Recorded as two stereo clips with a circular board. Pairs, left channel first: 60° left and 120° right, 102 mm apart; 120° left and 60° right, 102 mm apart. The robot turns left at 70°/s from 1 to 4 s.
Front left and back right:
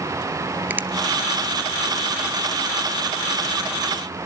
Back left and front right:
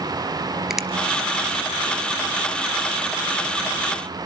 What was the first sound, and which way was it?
A finger snap, 135° right.